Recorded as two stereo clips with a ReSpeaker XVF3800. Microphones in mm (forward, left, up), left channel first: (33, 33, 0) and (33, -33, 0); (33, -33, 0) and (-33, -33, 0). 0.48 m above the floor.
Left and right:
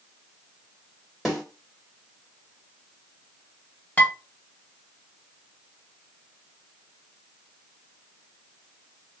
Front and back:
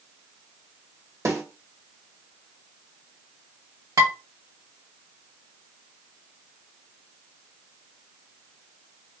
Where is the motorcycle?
No motorcycle in this recording.